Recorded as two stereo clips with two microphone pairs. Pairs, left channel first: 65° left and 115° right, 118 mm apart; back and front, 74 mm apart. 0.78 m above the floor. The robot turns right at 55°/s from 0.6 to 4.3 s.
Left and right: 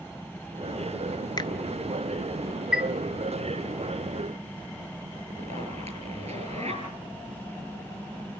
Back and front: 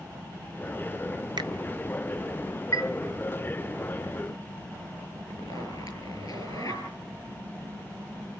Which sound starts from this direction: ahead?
A finger snap, at 1.4 s.